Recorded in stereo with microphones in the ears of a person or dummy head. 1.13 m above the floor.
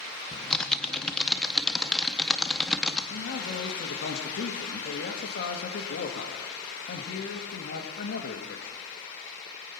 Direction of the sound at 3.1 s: 55° left (ahead or behind).